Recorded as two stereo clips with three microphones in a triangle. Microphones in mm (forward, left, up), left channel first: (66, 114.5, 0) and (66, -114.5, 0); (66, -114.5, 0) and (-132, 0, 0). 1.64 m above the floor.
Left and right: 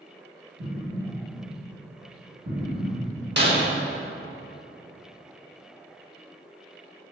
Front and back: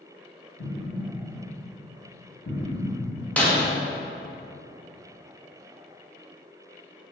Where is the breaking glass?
115° right, 1.5 m.